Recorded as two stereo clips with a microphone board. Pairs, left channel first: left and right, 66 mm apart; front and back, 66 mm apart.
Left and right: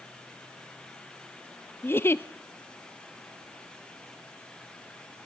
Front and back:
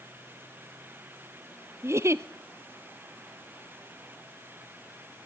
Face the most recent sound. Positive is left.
turn(degrees=140)